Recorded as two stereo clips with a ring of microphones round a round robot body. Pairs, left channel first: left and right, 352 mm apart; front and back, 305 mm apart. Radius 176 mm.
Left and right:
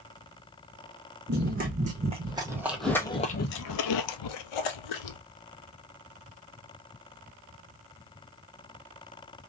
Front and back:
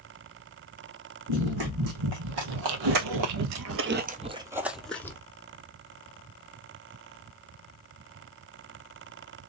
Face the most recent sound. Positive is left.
turn(degrees=80)